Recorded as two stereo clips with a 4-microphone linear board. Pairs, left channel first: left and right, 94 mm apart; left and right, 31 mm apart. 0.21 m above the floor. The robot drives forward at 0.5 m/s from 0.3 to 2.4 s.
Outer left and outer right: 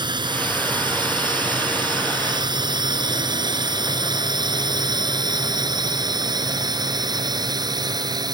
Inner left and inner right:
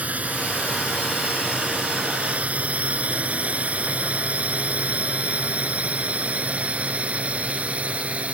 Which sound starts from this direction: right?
A drone, at 0.0 s.